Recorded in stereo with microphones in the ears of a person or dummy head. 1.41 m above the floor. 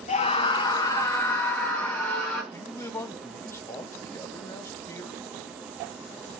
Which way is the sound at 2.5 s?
15° left (ahead or behind).